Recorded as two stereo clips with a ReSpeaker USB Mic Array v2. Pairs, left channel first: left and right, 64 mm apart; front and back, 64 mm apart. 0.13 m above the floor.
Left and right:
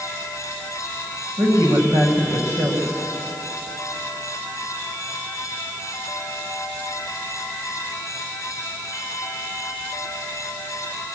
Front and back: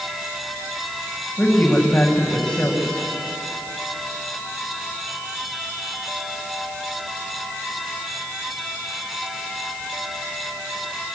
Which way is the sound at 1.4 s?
75° right.